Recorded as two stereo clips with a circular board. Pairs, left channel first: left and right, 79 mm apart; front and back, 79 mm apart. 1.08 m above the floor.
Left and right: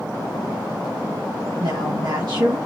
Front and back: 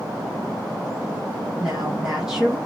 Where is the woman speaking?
100° right, 1.3 m.